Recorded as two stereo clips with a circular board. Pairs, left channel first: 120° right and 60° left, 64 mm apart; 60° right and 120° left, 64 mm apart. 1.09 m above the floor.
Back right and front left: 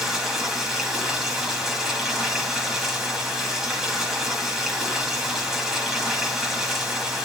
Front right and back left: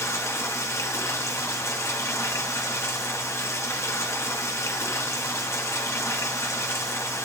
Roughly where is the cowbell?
I don't hear a cowbell.